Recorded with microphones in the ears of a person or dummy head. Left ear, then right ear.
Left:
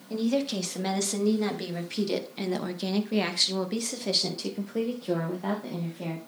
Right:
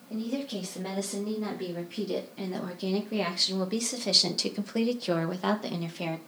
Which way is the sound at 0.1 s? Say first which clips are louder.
Left 6 dB; 45° left (ahead or behind).